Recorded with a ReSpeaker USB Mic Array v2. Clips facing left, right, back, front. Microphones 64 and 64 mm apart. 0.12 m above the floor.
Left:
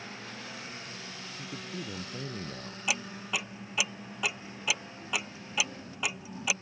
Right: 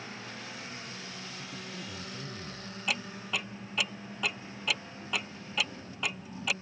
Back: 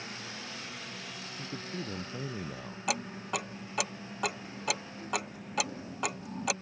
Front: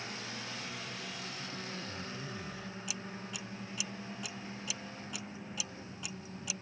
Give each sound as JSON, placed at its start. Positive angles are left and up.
{"t": 1.4, "sound": "a man speaking", "azimuth_deg": 145}
{"t": 2.9, "sound": "ticking", "azimuth_deg": 175}